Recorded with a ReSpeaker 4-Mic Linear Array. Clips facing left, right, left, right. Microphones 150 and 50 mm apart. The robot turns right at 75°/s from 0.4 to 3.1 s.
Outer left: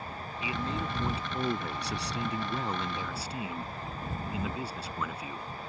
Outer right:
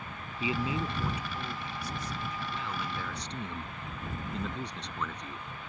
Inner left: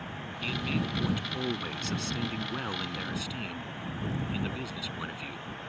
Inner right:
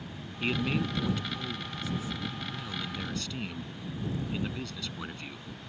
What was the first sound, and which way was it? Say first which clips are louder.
A man speaking: outer right 3 dB, inner right 3 dB; 30° right.